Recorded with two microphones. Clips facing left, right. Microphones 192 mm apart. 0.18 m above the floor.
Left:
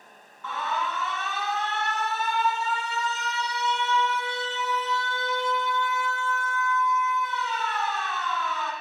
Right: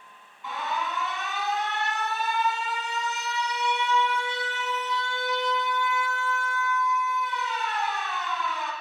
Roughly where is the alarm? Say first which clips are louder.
Left 1 dB; centre.